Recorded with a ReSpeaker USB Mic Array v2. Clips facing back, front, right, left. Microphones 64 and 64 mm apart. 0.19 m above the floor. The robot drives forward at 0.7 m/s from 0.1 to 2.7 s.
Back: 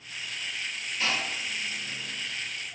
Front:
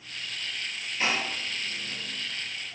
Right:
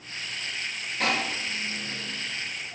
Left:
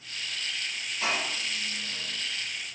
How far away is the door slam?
About 2.5 m.